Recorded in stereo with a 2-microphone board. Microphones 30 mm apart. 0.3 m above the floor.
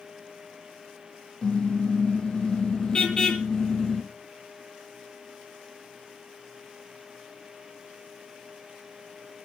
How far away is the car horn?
About 5.5 m.